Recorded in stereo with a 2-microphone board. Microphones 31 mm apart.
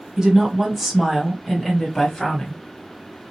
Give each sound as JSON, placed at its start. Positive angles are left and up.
{"t": 0.2, "sound": "a woman speaking", "side_deg": -20, "distance_m": 1.4}